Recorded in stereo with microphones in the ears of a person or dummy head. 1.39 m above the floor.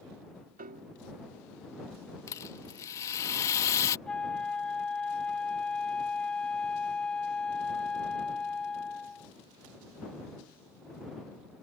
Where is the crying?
No crying in this recording.